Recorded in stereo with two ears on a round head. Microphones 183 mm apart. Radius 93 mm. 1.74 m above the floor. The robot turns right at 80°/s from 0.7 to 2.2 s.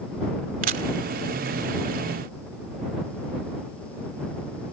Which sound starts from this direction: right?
A camera shutter, at 0.6 s.